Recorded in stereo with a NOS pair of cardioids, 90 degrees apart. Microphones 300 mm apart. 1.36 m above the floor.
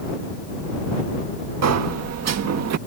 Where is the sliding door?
60° right.